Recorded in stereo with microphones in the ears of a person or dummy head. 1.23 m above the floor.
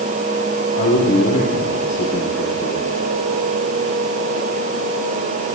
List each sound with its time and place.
0.8 s a man speaking: 40° left (ahead or behind), 6 m